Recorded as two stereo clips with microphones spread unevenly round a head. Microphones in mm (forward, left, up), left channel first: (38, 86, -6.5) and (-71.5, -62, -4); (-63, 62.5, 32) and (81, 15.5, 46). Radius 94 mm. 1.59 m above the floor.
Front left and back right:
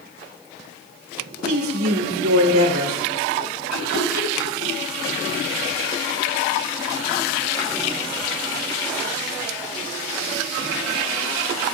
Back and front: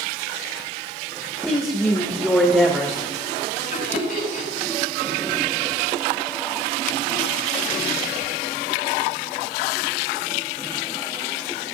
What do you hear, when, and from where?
1.4 s a woman speaking: 115° right, 2.5 m
3.7 s laughter: 145° left, 7 m